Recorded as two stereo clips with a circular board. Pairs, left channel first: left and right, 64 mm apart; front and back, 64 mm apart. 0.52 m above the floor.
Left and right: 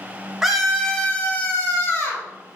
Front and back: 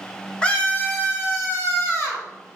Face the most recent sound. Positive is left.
turn(degrees=40)